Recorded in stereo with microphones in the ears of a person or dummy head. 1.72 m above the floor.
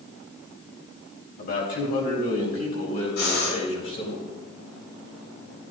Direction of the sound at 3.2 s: 65° left (ahead or behind).